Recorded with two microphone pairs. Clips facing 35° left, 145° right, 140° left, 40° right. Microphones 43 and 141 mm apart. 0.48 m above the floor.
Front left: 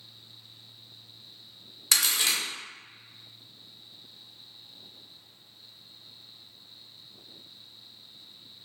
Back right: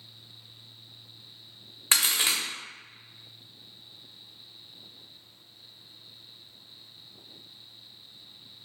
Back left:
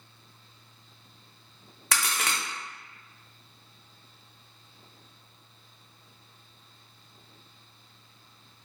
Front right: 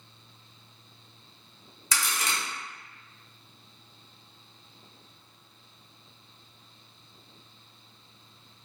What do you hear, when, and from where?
1.9 s a crack: 155° left, 0.7 m